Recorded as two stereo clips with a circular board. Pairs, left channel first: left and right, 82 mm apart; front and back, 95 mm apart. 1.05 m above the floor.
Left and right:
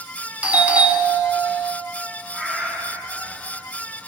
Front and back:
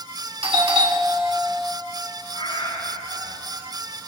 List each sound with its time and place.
0.4 s a doorbell: 160° right, 3 m
2.3 s a cat meowing: 15° right, 7.5 m